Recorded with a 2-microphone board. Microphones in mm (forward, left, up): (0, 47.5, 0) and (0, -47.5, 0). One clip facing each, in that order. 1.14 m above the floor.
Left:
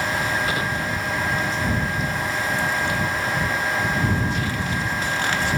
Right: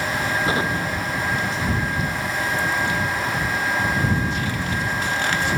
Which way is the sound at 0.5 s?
25° right (ahead or behind).